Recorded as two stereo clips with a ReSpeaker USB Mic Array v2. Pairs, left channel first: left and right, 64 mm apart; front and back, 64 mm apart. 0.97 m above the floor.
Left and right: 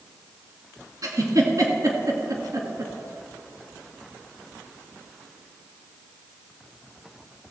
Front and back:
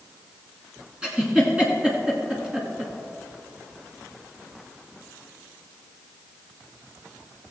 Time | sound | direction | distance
1.0 | a giggle | 105° right | 2 m